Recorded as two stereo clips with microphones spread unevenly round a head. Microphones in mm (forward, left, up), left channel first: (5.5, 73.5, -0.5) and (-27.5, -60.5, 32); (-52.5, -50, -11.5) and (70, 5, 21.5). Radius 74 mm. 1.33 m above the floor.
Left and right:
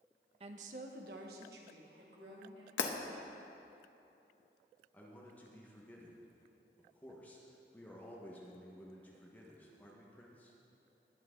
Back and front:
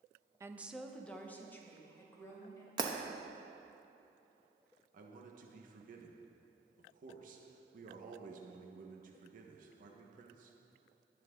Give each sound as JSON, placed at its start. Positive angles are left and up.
{"t": 0.4, "sound": "a woman speaking", "azimuth_deg": -45, "distance_m": 0.7}
{"t": 2.8, "sound": "breaking glass", "azimuth_deg": 75, "distance_m": 0.9}
{"t": 4.9, "sound": "a man speaking", "azimuth_deg": -5, "distance_m": 1.3}